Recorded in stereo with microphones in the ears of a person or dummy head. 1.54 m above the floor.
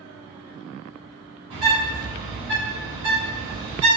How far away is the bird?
About 1.3 m.